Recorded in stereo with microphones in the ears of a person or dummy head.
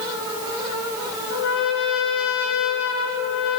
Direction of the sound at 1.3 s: 60° left (ahead or behind).